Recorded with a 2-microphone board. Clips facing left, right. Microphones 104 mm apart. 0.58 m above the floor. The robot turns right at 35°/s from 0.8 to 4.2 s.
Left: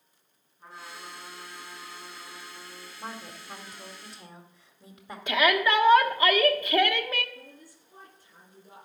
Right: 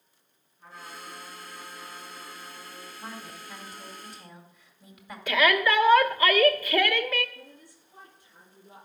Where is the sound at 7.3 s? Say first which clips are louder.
Even; 40° left (ahead or behind), 6.5 m.